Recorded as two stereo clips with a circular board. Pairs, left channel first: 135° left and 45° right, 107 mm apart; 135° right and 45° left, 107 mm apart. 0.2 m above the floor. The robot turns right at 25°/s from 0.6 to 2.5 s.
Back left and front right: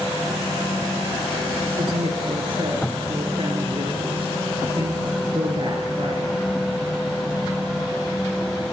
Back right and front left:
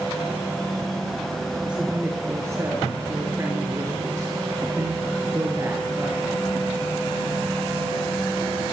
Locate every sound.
1.7 s a woman speaking: 35° right, 3.5 m; by 6.3 s 15° right, 3.5 m